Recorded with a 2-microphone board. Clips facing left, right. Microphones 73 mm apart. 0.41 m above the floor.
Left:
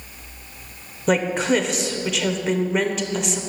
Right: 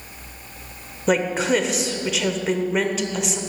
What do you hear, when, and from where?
1.1 s a woman speaking: centre (ahead or behind), 0.9 m